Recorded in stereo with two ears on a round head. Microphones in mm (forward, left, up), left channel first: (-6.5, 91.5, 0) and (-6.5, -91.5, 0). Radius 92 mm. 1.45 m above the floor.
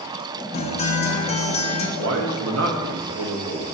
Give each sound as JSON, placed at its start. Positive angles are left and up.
{"t": 0.5, "sound": "a guitar", "side_deg": 30, "distance_m": 0.5}
{"t": 2.0, "sound": "a man speaking", "side_deg": -75, "distance_m": 0.6}